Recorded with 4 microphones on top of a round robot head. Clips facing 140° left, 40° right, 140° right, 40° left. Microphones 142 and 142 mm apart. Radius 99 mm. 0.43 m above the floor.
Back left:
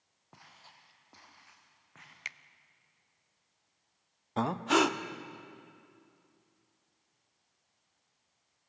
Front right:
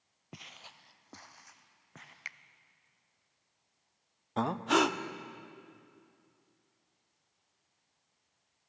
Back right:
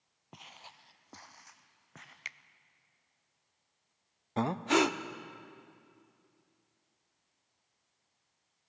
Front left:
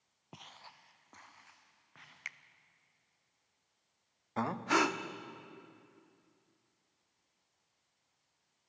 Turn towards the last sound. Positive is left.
turn(degrees=-135)